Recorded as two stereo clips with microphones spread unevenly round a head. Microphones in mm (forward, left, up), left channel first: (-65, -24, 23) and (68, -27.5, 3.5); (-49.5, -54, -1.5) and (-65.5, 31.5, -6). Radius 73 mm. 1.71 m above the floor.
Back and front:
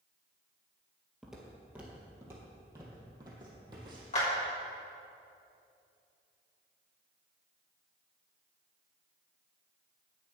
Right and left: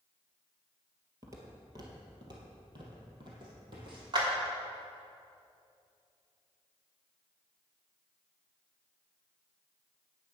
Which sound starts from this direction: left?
Footsteps, at 1.2 s.